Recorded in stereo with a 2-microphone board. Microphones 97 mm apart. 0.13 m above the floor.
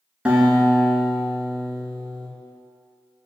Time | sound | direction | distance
0.2 | a guitar | 10° right (ahead or behind) | 0.8 m